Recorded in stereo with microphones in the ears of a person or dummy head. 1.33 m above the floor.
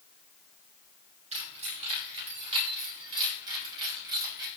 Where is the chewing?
I don't hear chewing.